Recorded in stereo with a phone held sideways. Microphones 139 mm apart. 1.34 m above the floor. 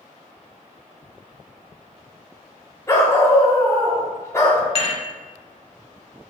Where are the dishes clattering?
45° left (ahead or behind), 2 m.